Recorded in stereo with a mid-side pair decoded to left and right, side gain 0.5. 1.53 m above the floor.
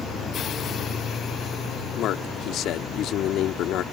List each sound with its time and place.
2.0 s a man speaking: 65° left